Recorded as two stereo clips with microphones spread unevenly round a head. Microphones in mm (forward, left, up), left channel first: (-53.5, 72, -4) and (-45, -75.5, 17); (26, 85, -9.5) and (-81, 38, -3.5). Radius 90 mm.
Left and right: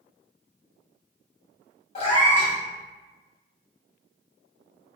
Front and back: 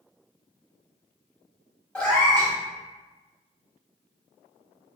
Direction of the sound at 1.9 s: 100° left.